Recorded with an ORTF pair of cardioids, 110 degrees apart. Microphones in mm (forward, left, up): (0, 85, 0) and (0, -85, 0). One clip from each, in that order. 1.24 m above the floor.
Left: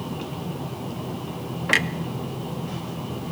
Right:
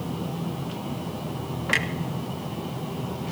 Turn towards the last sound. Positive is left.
turn(degrees=15)